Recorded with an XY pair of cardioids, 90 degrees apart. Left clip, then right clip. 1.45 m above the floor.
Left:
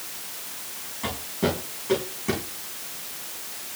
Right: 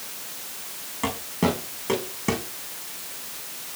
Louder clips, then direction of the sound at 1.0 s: Right 2 dB; 60° right.